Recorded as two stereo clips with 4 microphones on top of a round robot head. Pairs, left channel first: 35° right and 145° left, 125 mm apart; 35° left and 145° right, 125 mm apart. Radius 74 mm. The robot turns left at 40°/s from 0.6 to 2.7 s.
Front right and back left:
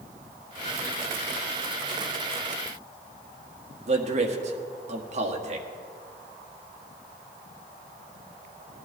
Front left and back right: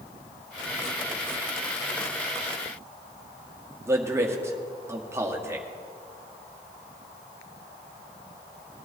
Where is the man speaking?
145° left, 1.6 m.